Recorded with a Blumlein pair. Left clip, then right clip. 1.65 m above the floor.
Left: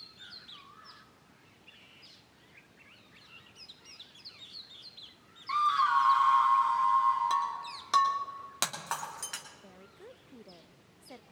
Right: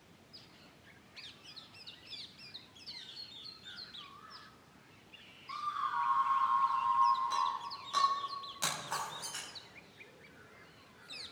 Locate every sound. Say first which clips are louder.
5.5 s a scream: left 10 dB; 25° left, 0.7 m; by 7.6 s 50° left, 3 m
7.3 s breaking glass: left 3 dB; 55° left, 2.5 m
9.6 s a woman speaking: left 3 dB; 35° left, 0.6 m